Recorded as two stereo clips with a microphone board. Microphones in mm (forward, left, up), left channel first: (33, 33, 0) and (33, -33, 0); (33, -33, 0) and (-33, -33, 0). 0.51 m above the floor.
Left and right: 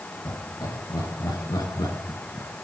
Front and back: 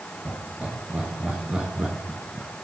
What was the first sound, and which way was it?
Laughter, 105° left.